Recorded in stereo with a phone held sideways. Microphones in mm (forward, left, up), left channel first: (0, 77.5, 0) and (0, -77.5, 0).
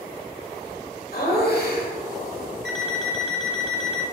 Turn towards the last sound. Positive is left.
turn(degrees=0)  # may be behind; listen again after turning